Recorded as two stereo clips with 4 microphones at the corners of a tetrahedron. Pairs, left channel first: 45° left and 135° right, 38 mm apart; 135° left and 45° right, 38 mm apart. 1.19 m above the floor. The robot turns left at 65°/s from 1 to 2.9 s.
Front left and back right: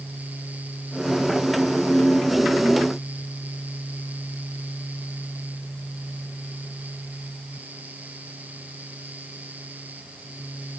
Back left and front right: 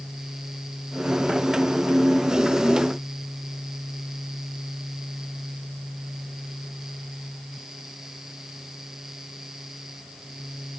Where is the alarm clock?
No alarm clock in this recording.